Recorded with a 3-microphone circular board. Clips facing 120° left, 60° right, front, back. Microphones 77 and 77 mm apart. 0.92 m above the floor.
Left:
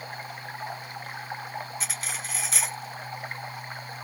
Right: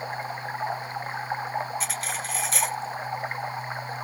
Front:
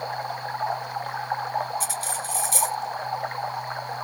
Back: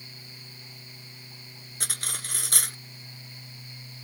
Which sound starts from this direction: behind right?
Cutlery clinking, at 1.8 s.